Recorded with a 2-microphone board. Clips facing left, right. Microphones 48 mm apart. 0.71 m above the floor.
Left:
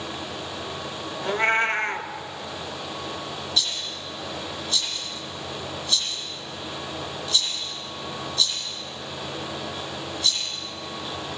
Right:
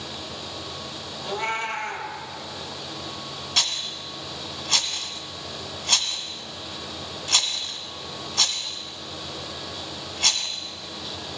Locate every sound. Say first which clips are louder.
1.2 s a cat meowing: left 6 dB; 45° left (ahead or behind), 1.0 m
3.6 s a rattle: right 4 dB; 75° right (ahead or behind), 1.4 m